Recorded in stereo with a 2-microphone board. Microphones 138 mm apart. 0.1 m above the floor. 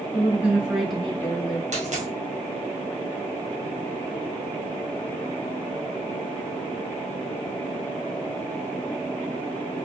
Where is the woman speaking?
20° right (ahead or behind), 1.1 m; by 1.6 s 25° left (ahead or behind), 1.2 m.